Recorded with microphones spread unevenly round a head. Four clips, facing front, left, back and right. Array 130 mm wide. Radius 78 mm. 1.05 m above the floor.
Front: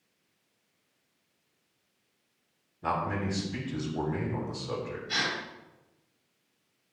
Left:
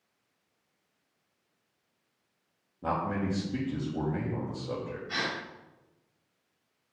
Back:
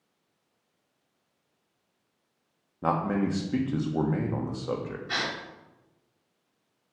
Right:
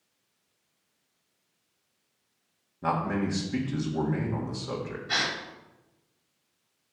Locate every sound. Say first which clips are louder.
2.8 s a man speaking: right 3 dB, back 4 dB; 175° right, 1.7 m
5.1 s a gasp: right 3 dB, even; 115° right, 2.5 m